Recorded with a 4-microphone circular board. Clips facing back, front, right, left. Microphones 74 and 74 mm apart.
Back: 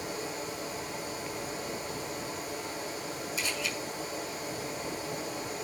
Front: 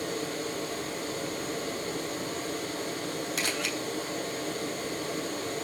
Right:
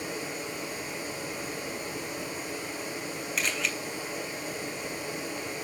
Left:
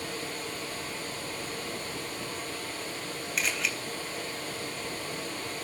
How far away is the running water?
About 8.5 m.